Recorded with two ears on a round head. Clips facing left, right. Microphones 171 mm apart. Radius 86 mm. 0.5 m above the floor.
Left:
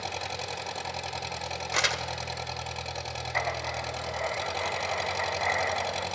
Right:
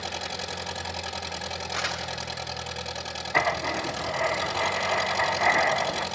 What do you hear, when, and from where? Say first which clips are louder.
0.0 s an engine running: right 1 dB; 5° right (ahead or behind), 1.8 m
1.7 s crumpling: left 4 dB; 60° left (ahead or behind), 1.1 m
3.3 s writing: right 6 dB; 75° right (ahead or behind), 0.8 m